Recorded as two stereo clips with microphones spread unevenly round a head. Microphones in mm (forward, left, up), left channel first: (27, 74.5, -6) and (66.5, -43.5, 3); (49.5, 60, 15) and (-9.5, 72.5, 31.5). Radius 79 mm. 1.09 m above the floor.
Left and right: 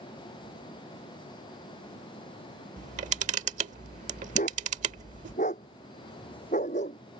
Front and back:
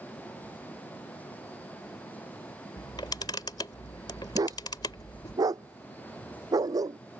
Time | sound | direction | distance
2.8 | a camera shutter | 75° right | ?
4.3 | a dog barking | 160° left | ?